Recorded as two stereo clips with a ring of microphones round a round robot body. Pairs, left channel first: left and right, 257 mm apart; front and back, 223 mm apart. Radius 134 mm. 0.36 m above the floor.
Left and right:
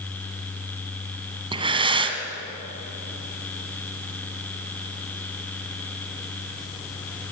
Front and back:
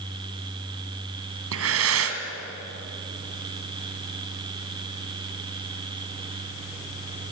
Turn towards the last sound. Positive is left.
turn(degrees=-160)